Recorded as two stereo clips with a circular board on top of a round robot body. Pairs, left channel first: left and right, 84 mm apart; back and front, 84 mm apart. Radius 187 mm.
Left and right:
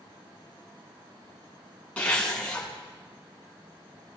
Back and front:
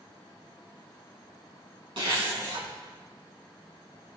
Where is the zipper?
15° left, 4 m.